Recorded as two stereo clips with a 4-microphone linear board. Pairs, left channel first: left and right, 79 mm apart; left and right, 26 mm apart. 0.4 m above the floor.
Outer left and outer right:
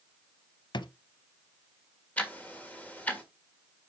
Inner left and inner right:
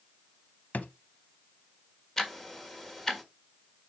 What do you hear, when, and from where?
0.7 s a drawer: 80° left, 0.7 m
2.2 s ticking: 20° left (ahead or behind), 1.5 m